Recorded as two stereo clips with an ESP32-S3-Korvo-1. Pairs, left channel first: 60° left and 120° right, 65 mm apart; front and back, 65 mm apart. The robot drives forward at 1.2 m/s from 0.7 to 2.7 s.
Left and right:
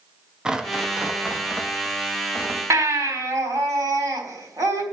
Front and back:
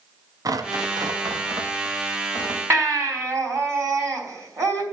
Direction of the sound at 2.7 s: 145° right.